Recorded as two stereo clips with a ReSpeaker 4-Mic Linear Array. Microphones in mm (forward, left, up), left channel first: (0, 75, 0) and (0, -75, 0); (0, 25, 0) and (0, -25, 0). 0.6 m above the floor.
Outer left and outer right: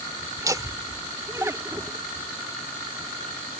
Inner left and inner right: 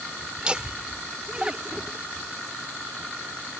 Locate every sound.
0.4 s laughter: 20° right (ahead or behind); by 2.0 s 15° right (ahead or behind)